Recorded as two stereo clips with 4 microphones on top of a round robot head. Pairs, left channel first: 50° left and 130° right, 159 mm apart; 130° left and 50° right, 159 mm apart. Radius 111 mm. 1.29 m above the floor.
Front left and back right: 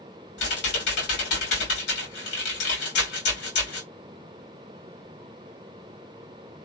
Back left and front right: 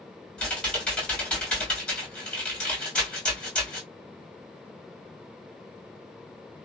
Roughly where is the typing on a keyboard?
Ahead left.